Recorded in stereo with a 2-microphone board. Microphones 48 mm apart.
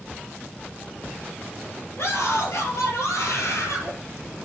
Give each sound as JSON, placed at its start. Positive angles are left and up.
{"t": 2.0, "sound": "a scream", "side_deg": 65, "distance_m": 6.0}